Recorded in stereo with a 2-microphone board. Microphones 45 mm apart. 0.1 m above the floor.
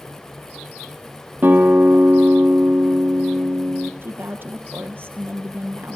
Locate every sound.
1.4 s a guitar: 50° right (ahead or behind), 2 m
4.0 s a woman speaking: 60° right (ahead or behind), 2 m